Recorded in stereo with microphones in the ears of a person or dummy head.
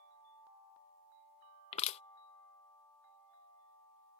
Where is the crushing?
35° left (ahead or behind).